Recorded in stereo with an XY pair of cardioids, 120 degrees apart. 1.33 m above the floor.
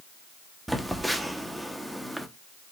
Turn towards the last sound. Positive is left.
turn(degrees=-5)